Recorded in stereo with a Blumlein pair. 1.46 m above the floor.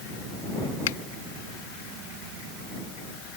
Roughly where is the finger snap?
Ahead left.